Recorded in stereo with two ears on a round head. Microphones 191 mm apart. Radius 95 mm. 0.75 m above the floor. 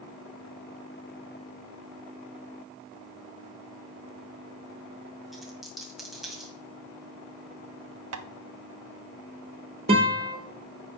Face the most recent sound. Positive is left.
turn(degrees=-30)  # may be behind; listen again after turning